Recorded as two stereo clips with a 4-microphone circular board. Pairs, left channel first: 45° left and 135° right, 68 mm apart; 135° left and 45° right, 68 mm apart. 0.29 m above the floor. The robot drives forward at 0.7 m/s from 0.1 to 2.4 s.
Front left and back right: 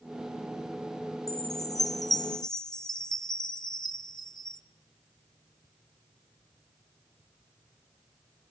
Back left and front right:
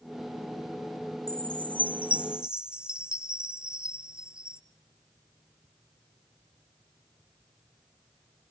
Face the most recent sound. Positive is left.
turn(degrees=30)